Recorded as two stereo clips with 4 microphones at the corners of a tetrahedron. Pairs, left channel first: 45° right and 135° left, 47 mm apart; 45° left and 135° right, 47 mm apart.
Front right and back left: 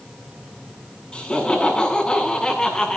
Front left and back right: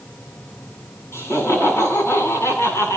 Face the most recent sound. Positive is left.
turn(degrees=35)